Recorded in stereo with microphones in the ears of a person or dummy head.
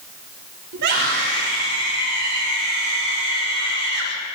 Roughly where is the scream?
Right.